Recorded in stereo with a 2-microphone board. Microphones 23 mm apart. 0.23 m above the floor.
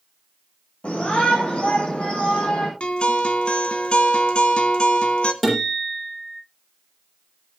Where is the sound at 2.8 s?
60° left (ahead or behind), 1.9 m.